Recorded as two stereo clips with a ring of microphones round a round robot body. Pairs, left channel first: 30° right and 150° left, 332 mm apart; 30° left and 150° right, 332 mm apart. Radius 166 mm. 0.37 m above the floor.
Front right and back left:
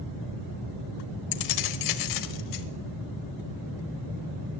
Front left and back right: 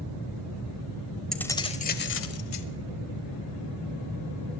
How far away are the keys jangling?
About 1.1 m.